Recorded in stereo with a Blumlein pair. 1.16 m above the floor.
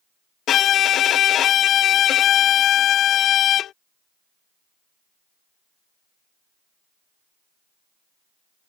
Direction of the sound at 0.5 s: 30° left.